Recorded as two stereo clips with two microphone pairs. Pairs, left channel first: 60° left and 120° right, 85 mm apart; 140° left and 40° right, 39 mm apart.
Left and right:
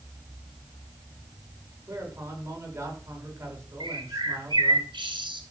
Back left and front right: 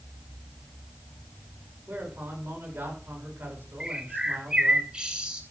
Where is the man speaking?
60° right, 7.5 m.